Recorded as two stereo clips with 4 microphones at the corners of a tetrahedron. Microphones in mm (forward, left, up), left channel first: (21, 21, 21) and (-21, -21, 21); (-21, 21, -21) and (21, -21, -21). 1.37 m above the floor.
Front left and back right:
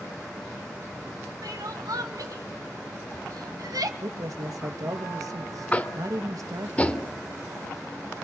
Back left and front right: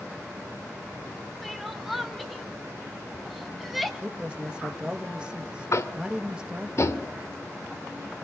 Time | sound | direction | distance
1.4 | crying | 135° right | 2.5 m
4.0 | a man speaking | 115° right | 2.5 m
5.7 | tapping | 110° left | 1.8 m